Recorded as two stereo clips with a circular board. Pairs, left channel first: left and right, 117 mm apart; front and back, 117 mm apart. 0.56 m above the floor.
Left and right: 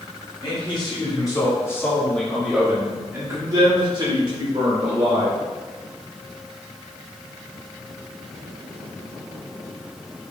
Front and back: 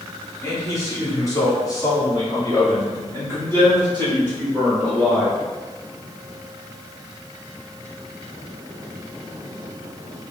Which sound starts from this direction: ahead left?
A man speaking, at 0.4 s.